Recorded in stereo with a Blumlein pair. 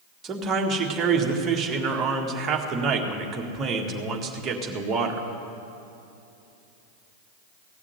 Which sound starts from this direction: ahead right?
A man speaking, at 0.2 s.